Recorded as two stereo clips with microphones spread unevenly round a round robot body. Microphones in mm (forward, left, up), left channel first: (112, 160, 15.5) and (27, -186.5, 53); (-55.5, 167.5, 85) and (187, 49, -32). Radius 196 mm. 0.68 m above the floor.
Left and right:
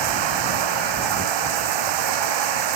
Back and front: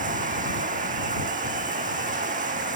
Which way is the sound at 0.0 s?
95° right.